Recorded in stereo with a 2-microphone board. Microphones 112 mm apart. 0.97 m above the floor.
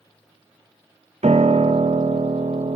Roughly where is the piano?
Right.